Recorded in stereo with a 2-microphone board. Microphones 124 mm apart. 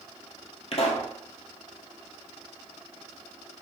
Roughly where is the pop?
Left.